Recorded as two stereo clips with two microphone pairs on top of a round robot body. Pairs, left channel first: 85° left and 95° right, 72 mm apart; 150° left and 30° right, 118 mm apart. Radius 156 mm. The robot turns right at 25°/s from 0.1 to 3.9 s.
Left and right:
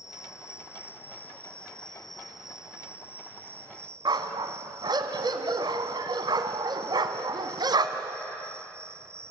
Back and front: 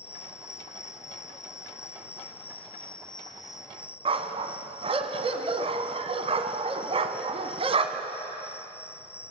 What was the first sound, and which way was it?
An insect, 125° left.